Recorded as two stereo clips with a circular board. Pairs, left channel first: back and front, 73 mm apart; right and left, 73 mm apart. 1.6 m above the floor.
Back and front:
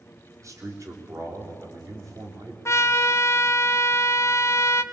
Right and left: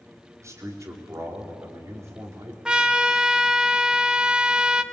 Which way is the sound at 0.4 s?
45° left.